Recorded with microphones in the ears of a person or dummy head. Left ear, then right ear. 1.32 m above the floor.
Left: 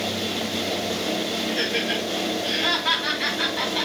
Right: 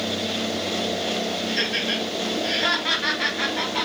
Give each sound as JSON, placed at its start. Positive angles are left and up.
{"t": 1.5, "sound": "laughter", "side_deg": -85, "distance_m": 3.0}